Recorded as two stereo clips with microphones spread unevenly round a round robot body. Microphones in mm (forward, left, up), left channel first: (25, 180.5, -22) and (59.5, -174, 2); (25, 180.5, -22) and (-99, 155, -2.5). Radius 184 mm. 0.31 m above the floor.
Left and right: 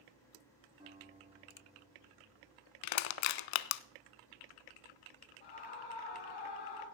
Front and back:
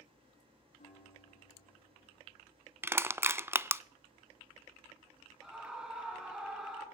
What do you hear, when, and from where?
0.8 s a guitar: 10° right, 7.5 m
2.8 s crushing: 115° left, 0.5 m
5.4 s a scream: 105° left, 4 m